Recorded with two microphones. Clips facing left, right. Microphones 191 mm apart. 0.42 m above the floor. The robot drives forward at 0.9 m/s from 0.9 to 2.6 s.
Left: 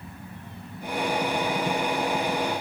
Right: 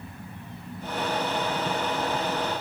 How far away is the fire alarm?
I don't hear a fire alarm.